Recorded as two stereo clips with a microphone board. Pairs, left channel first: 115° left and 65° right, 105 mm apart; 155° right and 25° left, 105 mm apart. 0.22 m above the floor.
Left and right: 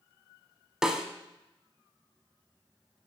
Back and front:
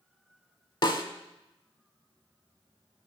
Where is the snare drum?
150° right, 0.6 m.